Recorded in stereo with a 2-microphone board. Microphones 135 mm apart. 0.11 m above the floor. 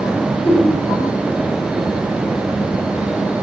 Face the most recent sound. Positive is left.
turn(degrees=15)  # may be behind; listen again after turning